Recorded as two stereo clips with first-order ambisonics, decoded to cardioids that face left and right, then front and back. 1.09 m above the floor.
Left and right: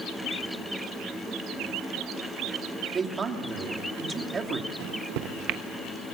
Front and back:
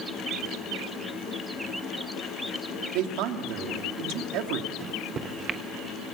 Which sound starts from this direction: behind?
A man speaking, at 2.9 s.